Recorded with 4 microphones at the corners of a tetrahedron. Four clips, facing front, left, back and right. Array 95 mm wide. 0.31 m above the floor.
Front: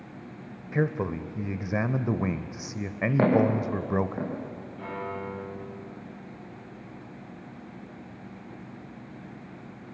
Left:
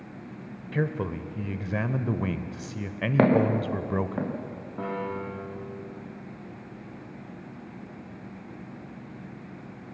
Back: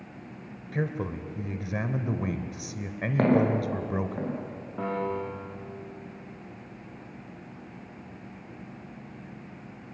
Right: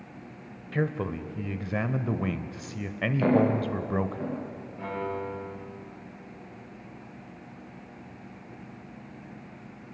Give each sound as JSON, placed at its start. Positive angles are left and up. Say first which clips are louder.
{"t": 0.7, "sound": "a man speaking", "louder": "even, front 4 dB", "azimuth_deg": -5, "distance_m": 0.9}
{"t": 3.2, "sound": "footsteps", "louder": "left 2 dB, even", "azimuth_deg": 80, "distance_m": 7.0}
{"t": 4.8, "sound": "a piano", "louder": "left 1 dB, back 5 dB", "azimuth_deg": 145, "distance_m": 7.0}